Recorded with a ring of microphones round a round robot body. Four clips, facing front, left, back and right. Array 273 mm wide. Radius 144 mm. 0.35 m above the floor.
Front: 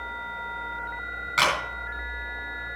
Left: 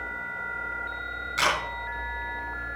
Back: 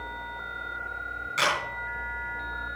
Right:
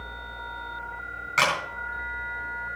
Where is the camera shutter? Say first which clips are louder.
Right 2 dB, front 3 dB; 55° right, 3.5 m.